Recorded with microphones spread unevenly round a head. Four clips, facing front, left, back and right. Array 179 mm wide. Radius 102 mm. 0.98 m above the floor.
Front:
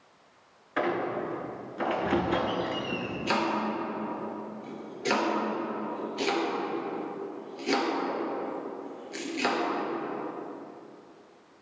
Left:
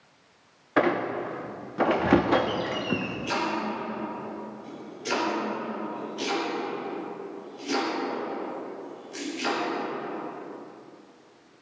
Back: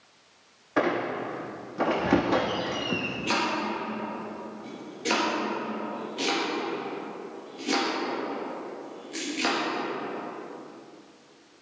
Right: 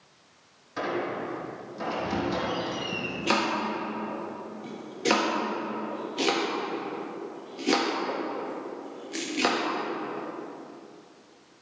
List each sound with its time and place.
0.8 s a squeak: 120° left, 0.6 m
3.3 s chopping: 100° right, 1.6 m